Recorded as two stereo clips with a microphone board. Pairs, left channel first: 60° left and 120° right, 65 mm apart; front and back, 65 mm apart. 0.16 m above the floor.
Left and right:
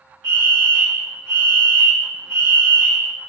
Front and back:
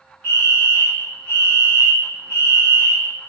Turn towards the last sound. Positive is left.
turn(degrees=135)